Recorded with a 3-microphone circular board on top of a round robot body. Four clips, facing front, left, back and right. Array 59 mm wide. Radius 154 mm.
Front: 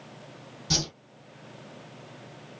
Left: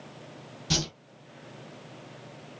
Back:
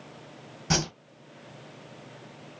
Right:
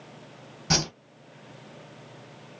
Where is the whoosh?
130° right, 0.5 m.